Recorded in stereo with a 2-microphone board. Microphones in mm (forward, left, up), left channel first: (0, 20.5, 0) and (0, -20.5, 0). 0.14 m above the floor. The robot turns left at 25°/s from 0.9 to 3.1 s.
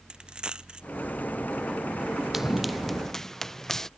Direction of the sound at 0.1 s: 25° right (ahead or behind).